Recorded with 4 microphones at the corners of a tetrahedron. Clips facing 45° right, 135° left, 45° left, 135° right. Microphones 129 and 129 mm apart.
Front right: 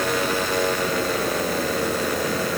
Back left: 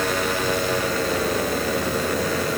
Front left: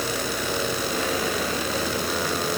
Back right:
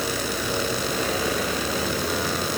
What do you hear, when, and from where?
Only background noise.